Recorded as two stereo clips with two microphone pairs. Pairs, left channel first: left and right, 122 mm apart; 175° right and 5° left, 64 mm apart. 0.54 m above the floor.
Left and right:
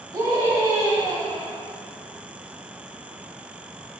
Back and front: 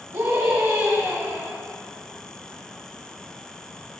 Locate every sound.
0.1 s a scream: 30° right, 4 m; by 1.6 s 35° right, 5 m